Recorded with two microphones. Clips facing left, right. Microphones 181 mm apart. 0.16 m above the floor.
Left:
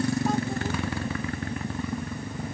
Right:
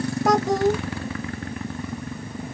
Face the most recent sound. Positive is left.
turn(degrees=-80)